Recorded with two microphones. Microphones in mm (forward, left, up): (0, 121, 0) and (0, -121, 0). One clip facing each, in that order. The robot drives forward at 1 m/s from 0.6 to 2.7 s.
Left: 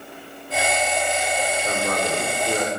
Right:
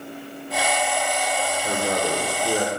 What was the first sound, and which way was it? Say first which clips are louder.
A man speaking: right 3 dB; 15° right (ahead or behind).